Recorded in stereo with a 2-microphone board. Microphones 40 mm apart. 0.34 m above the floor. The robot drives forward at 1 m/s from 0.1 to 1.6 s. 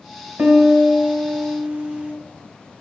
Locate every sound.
0.4 s a piano: 45° right (ahead or behind), 1.4 m; by 2.1 s 30° right (ahead or behind), 1.8 m